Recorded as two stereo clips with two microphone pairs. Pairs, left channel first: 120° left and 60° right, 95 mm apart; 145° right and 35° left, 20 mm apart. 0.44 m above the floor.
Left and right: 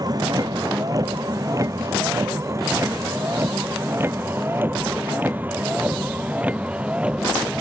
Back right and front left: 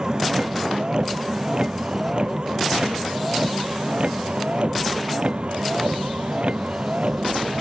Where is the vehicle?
15° right; by 7.6 s 20° left.